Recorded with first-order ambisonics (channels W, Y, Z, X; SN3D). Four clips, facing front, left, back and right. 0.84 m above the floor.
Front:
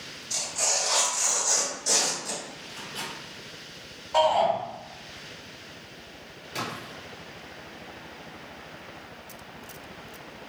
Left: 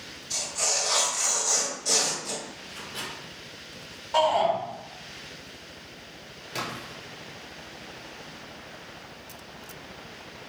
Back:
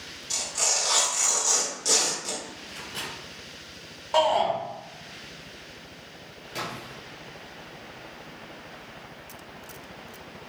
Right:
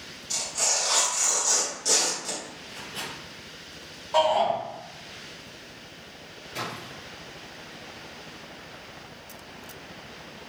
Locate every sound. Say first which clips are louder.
0.3 s tearing paper: right 1 dB, back 1 dB; 155° right, 1.6 m
2.7 s a microwave: right 1 dB, back 1 dB; straight behind, 1.9 m
4.1 s a shout: even, even; 175° right, 1.9 m
6.5 s a splash: left 1 dB, front 1 dB; 85° left, 0.9 m